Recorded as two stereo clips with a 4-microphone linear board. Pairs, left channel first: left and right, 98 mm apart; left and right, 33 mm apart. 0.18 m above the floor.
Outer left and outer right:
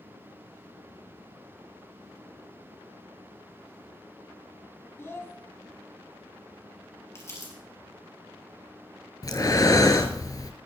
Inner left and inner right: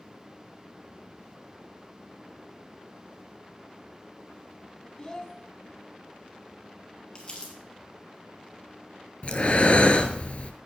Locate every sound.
5.0 s a child speaking: 25° left (ahead or behind), 1.1 m
7.2 s crumpling: 30° left (ahead or behind), 3.5 m
9.2 s breathing: 40° left (ahead or behind), 0.9 m